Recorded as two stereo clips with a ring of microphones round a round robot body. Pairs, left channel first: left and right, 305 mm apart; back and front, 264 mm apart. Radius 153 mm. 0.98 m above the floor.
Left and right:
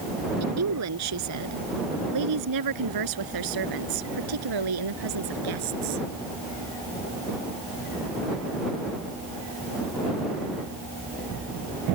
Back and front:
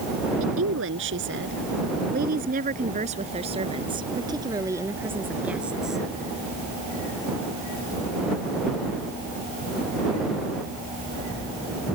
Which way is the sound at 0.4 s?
50° right.